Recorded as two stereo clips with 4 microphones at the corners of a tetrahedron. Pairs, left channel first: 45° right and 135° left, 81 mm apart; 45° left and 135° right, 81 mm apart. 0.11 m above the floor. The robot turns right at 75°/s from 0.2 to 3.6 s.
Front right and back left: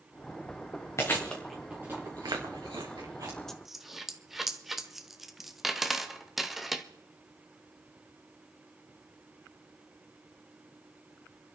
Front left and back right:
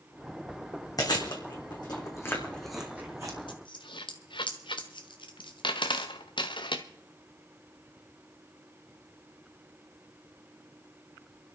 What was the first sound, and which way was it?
Chewing, 5° left.